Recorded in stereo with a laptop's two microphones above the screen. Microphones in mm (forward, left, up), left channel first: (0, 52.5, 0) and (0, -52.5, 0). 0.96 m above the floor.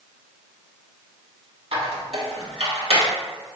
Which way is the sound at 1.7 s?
70° right (ahead or behind).